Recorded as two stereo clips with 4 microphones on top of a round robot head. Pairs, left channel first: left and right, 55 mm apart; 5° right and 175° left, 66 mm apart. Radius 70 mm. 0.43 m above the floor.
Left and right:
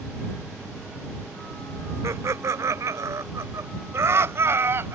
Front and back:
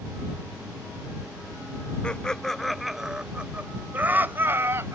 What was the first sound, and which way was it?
Laughter, 80° right.